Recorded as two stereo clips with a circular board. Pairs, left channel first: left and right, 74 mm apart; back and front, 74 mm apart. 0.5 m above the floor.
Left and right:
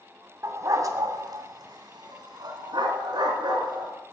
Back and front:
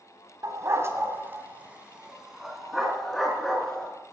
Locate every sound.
0.4 s a dog barking: 45° right, 1.3 m; by 3.9 s 100° right, 2.5 m